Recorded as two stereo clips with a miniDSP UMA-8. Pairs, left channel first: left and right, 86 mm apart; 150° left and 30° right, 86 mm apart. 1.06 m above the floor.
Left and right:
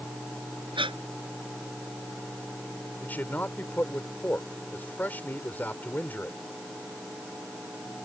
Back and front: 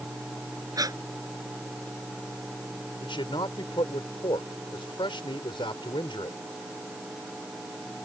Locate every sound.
0.8 s breathing: 75° right
3.0 s a man speaking: 160° left